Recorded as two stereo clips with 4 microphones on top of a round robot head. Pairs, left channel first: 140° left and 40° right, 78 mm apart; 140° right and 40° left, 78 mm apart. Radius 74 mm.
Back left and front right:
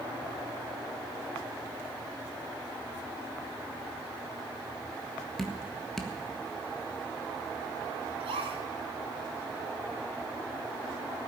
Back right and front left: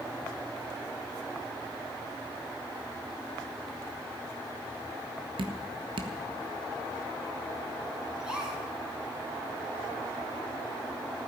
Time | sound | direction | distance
5.4 | dripping | 55° left | 1.6 m
8.2 | a gasp | 40° right | 3 m